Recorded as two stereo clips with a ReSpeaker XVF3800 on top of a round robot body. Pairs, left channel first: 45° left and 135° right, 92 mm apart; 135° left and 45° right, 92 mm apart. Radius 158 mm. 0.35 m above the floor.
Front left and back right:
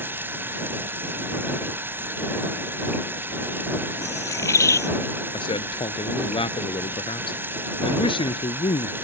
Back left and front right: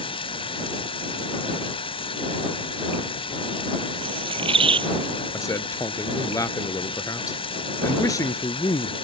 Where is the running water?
155° left.